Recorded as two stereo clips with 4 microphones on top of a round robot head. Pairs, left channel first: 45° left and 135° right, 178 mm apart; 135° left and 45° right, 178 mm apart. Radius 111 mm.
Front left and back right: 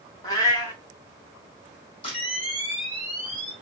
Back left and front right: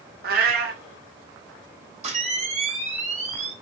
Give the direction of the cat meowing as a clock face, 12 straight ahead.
1 o'clock.